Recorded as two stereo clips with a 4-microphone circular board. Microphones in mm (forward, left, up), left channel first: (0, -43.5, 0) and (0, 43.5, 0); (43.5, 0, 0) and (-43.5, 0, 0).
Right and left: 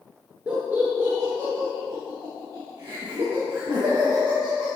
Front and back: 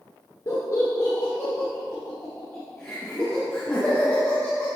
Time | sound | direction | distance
0.5 | laughter | 20° left | 1.4 m